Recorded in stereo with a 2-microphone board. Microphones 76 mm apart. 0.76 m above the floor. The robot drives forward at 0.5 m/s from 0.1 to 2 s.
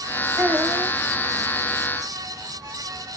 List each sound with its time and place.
0.4 s a child speaking: 75° right (ahead or behind), 1.8 m; by 0.9 s 70° right (ahead or behind), 1.9 m